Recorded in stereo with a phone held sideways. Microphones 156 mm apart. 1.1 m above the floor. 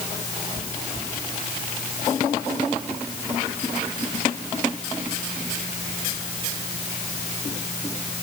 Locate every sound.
Only background noise.